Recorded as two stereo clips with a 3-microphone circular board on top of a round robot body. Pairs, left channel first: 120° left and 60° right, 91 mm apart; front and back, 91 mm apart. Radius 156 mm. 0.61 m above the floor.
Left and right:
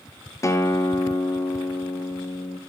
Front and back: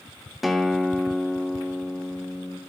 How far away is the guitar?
About 0.7 m.